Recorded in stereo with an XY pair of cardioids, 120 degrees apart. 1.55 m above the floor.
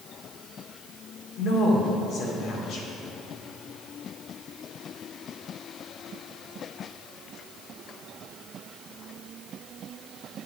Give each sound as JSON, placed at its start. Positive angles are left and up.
{"t": 1.4, "sound": "a woman speaking", "azimuth_deg": 65, "distance_m": 2.5}